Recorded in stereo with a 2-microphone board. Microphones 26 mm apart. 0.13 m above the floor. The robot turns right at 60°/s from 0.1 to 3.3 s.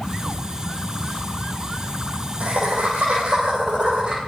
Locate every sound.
0.3 s laughter: 45° left (ahead or behind), 4.5 m; by 4.2 s 40° right (ahead or behind), 4.5 m